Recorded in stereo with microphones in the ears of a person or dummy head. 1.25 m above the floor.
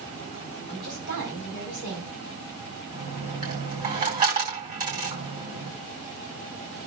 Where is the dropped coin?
45° right (ahead or behind), 3 m.